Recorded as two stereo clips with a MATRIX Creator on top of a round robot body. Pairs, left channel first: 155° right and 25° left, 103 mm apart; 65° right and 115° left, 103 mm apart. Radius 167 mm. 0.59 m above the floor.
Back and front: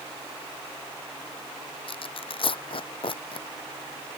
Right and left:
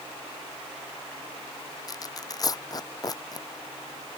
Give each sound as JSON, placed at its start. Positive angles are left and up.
{"t": 1.9, "sound": "tearing paper", "azimuth_deg": -120}